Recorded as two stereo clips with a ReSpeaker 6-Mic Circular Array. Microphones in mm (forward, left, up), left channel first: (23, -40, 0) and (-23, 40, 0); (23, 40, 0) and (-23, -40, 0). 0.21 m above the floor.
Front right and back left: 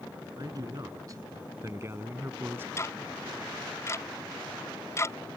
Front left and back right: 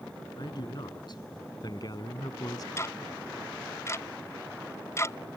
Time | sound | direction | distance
0.4 | a man speaking | 85° left | ?
2.8 | ticking | straight ahead | ?